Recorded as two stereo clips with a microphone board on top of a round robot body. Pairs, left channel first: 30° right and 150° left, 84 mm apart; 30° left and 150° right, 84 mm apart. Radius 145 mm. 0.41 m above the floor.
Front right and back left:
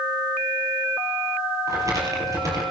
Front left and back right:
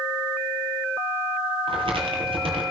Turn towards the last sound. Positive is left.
turn(degrees=-160)